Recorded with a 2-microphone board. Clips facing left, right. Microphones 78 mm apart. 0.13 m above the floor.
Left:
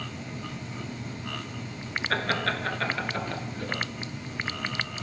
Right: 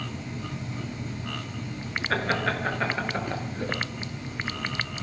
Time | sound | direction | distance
2.1 | laughter | 5° right (ahead or behind) | 1.5 m